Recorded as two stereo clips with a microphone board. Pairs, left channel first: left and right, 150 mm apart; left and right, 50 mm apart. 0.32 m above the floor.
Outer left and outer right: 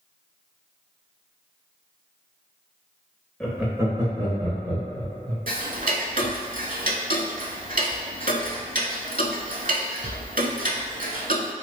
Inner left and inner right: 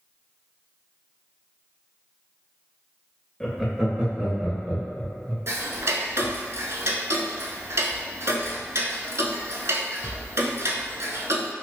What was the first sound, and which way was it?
Laughter, 5° left (ahead or behind).